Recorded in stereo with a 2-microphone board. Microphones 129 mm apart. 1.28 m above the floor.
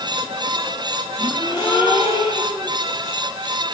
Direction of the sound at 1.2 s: 45° left (ahead or behind).